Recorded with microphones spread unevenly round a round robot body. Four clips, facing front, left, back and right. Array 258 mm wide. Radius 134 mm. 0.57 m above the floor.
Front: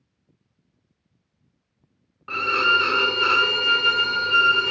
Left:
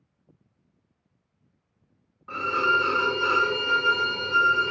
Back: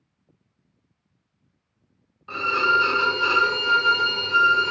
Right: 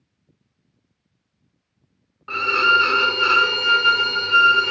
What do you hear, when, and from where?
2.3 s a violin: 60° right, 0.6 m